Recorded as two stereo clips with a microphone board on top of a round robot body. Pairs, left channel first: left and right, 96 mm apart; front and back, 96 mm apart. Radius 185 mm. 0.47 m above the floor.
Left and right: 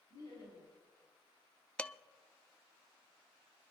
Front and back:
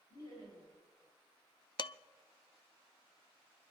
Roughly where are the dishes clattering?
Ahead.